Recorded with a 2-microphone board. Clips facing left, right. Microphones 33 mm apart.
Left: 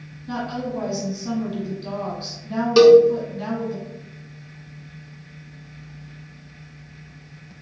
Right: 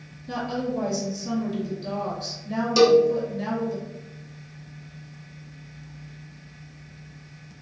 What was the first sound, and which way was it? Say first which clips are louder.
A woman speaking: left 1 dB; 25° left (ahead or behind).